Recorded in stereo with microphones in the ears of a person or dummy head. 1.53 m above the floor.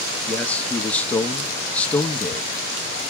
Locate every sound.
0.3 s a man speaking: 10° left (ahead or behind), 0.9 m